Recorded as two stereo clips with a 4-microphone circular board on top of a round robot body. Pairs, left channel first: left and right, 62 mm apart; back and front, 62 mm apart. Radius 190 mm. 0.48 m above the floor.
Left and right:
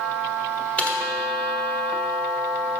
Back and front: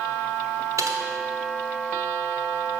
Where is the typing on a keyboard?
25° left, 1.3 m.